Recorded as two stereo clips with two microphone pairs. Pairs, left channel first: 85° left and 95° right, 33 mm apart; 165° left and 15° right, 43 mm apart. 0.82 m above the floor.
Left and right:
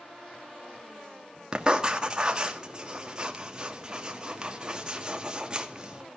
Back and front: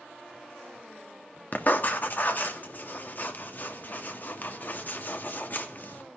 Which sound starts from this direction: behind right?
Writing, at 1.5 s.